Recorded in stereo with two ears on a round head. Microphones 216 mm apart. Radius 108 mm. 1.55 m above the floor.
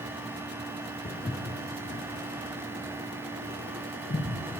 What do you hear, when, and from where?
1.1 s footsteps: 20° left (ahead or behind), 1.6 m; by 4.3 s 40° left (ahead or behind), 3.5 m